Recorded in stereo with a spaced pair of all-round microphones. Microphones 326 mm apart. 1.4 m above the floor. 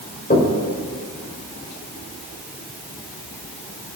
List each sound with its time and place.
0.3 s knocking: 30° left (ahead or behind), 3.5 m